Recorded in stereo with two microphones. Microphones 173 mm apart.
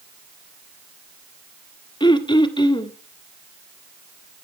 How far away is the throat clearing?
About 1.6 m.